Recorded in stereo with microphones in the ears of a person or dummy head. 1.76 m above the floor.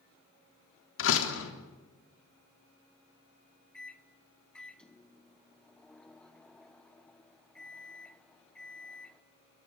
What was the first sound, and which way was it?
A door slam, 80° left.